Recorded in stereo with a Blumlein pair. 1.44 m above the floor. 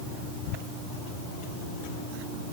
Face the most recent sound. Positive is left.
No sound to turn to.